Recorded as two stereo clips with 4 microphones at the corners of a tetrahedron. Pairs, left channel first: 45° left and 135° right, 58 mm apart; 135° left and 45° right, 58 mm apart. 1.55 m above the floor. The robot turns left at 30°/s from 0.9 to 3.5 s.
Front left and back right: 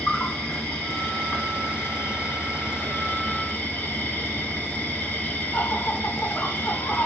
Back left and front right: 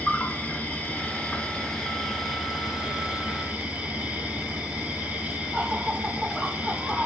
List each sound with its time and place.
0.0 s an insect: 85° left, 1.8 m; by 7.1 s 10° left, 1.8 m